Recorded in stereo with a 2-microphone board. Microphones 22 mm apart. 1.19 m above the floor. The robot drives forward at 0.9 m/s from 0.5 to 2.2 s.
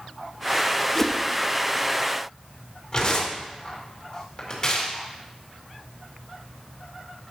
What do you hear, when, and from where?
0.9 s a whoosh: 15° left (ahead or behind), 0.5 m; by 1.2 s 20° left (ahead or behind), 0.5 m
2.9 s tearing paper: 25° left (ahead or behind), 2 m